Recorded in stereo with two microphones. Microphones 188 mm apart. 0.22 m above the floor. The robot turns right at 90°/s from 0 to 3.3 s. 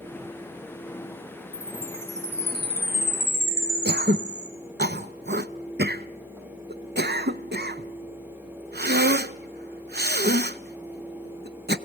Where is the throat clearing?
65° right (ahead or behind), 0.5 m.